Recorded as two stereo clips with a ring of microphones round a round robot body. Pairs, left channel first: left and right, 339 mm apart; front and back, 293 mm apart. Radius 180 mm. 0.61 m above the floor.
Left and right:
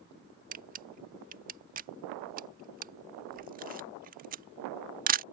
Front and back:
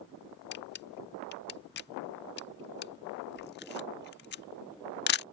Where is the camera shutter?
35° right.